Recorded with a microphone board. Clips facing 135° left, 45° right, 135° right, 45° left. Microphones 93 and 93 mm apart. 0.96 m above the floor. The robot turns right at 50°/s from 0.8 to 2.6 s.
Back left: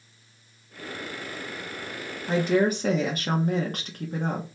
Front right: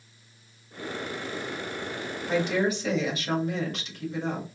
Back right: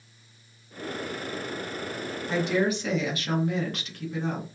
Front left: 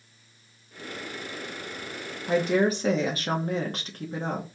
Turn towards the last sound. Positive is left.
turn(degrees=95)